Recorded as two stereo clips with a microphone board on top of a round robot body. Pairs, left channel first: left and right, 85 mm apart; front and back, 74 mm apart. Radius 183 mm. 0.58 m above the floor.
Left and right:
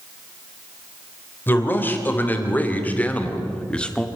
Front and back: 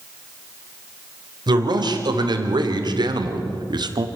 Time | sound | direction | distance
1.5 | a man speaking | 155° left | 3 m